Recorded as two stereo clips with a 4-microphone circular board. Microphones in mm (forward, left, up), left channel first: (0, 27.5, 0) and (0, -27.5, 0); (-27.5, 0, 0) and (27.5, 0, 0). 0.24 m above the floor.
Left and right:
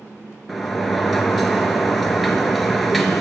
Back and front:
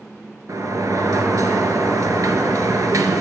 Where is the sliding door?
Straight ahead, 0.8 m.